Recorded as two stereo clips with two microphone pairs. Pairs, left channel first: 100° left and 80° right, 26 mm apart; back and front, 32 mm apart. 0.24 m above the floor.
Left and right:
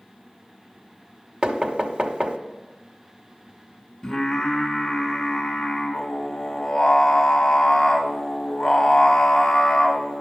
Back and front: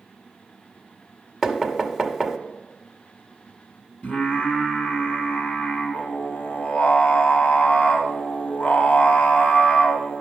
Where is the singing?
160° left, 1.7 m.